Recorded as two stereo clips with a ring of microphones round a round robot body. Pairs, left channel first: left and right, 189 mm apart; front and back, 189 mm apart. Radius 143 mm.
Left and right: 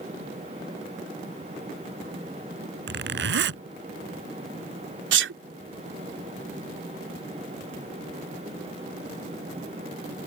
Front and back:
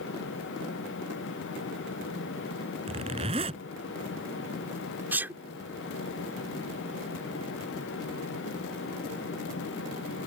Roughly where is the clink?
No clink in this recording.